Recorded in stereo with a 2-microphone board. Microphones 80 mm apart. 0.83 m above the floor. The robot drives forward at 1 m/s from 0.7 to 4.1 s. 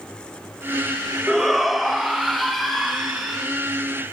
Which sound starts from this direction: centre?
A shout, at 1.3 s.